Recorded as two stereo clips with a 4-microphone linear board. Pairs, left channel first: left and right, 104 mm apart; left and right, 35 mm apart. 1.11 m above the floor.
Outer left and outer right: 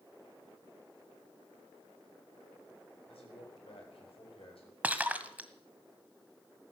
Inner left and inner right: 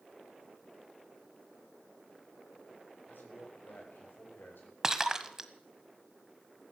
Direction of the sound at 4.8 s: 15° right (ahead or behind).